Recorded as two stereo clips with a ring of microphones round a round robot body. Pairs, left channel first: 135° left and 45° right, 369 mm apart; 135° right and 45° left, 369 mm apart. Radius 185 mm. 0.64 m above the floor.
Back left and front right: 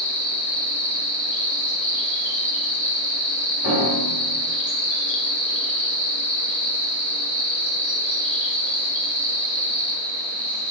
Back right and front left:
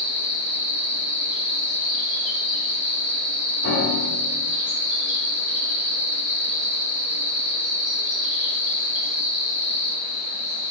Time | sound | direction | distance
0.0 | an insect | 100° left | 1.5 m
3.6 | a piano | 160° left | 1.7 m